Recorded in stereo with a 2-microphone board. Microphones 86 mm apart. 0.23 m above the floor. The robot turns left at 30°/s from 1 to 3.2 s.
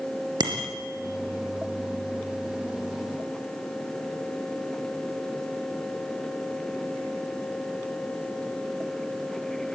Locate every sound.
0.4 s a bicycle bell: 55° right (ahead or behind), 3.5 m